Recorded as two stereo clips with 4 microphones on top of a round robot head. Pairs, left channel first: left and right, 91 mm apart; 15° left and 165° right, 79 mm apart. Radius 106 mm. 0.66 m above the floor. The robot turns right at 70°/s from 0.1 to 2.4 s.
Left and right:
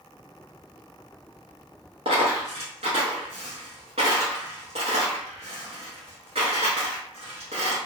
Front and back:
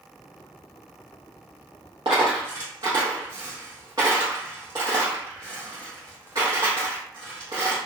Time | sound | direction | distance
2.0 | a dropped coin | 135° right | 0.7 m